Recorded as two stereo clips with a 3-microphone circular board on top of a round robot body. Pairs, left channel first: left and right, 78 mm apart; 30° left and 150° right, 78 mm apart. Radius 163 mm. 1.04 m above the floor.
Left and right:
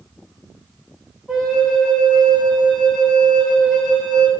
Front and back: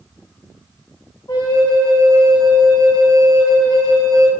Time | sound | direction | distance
1.3 | a flute | 5° right | 1.1 m